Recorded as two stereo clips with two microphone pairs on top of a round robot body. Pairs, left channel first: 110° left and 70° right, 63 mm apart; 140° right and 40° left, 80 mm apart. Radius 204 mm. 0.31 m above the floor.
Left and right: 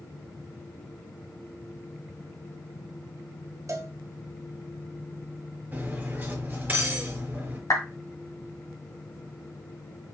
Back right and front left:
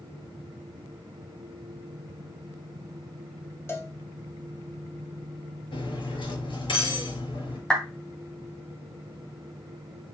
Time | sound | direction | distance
3.7 | a cowbell | 85° right | 1.8 m
5.7 | cutlery clinking | 130° right | 4.5 m
7.7 | a clap | 140° left | 3 m